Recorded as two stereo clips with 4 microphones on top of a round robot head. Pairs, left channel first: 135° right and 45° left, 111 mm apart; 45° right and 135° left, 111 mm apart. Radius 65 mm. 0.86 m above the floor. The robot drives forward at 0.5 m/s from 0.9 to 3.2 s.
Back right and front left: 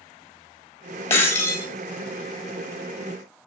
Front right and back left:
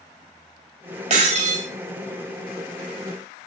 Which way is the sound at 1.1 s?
160° left.